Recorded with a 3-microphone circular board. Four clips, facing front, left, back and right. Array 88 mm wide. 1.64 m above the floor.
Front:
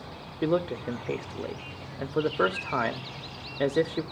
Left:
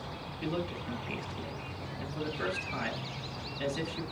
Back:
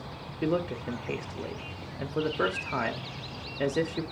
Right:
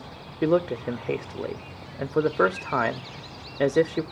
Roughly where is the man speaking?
Right.